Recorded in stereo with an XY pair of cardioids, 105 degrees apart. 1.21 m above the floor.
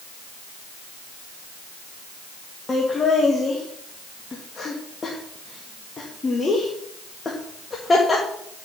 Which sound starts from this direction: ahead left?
Laughter, at 2.7 s.